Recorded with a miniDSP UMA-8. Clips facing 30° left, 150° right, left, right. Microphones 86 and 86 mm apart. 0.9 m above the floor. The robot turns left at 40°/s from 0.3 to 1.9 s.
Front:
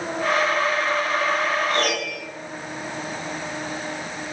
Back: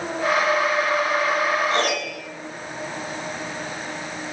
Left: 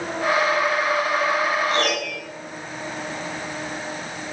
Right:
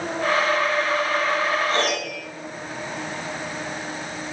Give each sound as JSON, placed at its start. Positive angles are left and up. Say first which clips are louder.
{"t": 1.7, "sound": "a piano", "louder": "back 1 dB, left 1 dB", "azimuth_deg": -105, "distance_m": 0.6}